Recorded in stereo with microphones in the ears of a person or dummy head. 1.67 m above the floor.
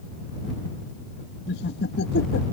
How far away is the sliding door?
No sliding door in this recording.